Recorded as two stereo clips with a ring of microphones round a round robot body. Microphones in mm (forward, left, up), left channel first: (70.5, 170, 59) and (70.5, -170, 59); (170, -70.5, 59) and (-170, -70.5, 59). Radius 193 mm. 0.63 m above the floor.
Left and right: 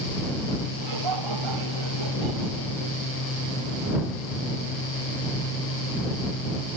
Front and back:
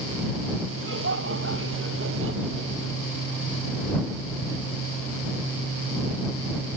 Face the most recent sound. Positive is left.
turn(degrees=-125)